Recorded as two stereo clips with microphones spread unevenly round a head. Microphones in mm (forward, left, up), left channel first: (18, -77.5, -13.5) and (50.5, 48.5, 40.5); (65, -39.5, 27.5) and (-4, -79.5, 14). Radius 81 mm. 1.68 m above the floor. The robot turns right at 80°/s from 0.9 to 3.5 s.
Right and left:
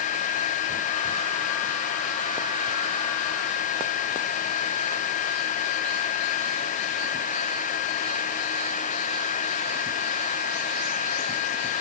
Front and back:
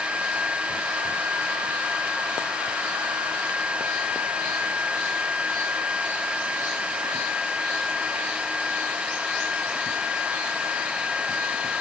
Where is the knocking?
No knocking in this recording.